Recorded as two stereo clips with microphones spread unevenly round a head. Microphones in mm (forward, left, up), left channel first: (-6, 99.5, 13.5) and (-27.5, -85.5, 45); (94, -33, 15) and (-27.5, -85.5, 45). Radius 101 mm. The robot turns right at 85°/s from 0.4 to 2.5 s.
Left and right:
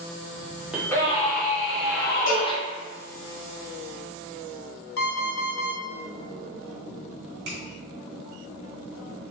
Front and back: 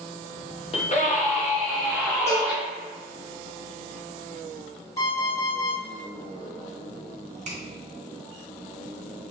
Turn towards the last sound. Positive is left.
turn(degrees=-125)